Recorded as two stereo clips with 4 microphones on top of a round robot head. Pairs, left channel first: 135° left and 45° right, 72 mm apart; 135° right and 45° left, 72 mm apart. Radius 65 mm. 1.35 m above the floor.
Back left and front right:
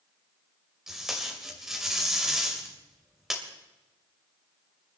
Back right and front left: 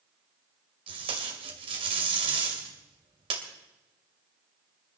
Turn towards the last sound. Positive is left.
turn(degrees=40)